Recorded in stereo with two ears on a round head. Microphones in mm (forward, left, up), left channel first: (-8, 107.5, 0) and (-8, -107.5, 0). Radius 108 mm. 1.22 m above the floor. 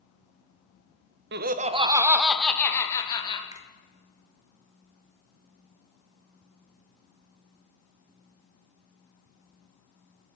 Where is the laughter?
45° right (ahead or behind), 0.6 m; by 3.4 s 20° left (ahead or behind), 1.3 m.